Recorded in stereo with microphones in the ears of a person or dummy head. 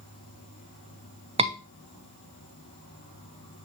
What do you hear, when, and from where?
0.0 s an insect: 80° left, 5 m
1.4 s a scream: 30° right (ahead or behind), 0.9 m